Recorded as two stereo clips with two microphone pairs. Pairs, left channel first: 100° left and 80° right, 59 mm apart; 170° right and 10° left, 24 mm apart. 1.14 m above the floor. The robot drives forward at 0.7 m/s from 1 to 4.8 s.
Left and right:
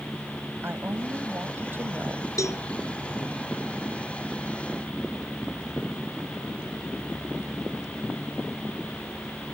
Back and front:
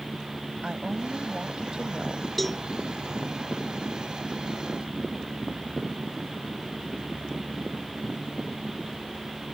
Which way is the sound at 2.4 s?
110° left.